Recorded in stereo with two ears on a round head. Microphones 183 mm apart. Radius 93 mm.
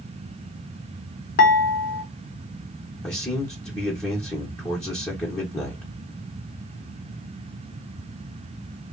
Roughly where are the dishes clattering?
Left.